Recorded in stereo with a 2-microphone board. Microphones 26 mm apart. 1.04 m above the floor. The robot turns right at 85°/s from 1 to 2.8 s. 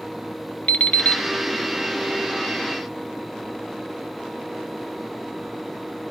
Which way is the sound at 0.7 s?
70° left (ahead or behind).